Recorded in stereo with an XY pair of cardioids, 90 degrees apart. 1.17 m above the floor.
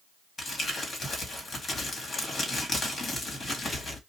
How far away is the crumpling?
About 1.6 m.